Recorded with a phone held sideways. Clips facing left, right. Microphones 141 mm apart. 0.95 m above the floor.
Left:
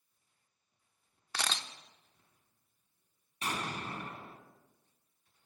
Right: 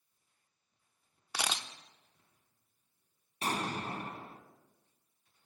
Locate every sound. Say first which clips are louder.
1.3 s a camera shutter: right 1 dB; 10° right (ahead or behind), 0.7 m
3.4 s an explosion: right 3 dB; 35° right (ahead or behind), 1.8 m